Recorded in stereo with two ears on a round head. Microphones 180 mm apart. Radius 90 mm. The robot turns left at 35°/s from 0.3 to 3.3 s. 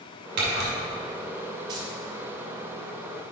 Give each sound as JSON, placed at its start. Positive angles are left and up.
{"t": 0.4, "sound": "a camera shutter", "side_deg": -60, "distance_m": 2.5}
{"t": 1.7, "sound": "keys jangling", "side_deg": -25, "distance_m": 2.0}